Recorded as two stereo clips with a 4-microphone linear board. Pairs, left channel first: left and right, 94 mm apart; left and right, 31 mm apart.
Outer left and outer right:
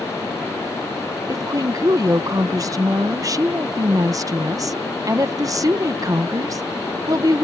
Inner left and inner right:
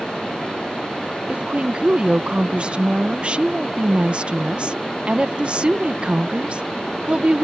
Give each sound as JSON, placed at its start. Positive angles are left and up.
{"t": 1.3, "sound": "a woman speaking", "side_deg": -40}